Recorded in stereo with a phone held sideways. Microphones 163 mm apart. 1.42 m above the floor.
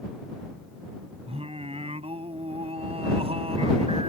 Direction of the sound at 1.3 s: 35° right (ahead or behind).